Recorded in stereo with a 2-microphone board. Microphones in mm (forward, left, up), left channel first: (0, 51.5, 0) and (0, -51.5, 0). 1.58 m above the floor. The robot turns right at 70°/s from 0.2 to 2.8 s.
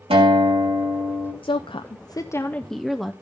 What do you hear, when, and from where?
0.1 s a guitar: 75° right, 3 m; by 1.3 s 5° left, 3 m
1.4 s a woman speaking: 80° left, 0.5 m; by 3.1 s straight behind, 0.5 m